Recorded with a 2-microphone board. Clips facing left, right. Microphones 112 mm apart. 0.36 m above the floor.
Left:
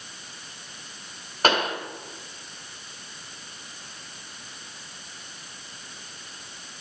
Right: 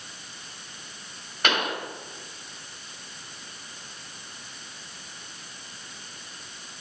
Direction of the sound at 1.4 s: 35° left (ahead or behind).